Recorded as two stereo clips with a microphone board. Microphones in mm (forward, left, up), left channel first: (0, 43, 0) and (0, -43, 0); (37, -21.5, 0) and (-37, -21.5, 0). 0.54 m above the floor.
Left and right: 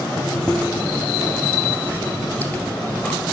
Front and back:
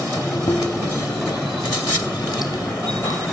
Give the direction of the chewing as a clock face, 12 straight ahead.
11 o'clock.